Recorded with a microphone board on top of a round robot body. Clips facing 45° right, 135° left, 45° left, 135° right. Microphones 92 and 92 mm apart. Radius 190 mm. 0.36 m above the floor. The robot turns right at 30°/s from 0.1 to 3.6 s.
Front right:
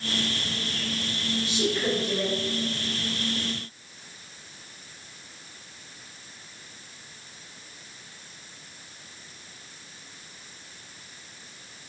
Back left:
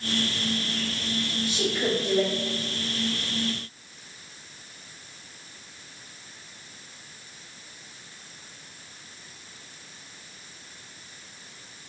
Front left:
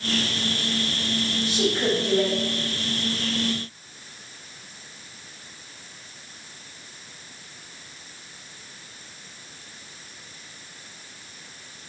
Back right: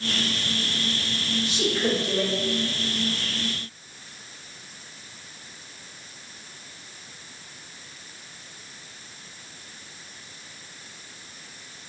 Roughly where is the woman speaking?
Left.